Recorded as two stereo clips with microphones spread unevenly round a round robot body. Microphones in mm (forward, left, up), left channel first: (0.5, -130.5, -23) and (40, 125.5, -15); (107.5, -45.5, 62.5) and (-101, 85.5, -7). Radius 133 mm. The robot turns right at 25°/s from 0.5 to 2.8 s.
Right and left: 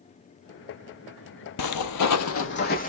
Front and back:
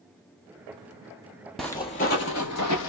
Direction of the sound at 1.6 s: 115° right.